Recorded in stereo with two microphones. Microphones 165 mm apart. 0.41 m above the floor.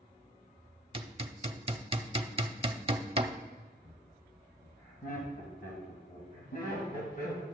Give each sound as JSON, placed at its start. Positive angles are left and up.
{"t": 0.9, "sound": "hammering", "side_deg": -30, "distance_m": 0.6}
{"t": 3.8, "sound": "laughter", "side_deg": 55, "distance_m": 2.0}